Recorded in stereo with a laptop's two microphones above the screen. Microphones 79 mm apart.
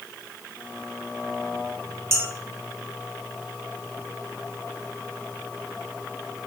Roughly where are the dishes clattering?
Right.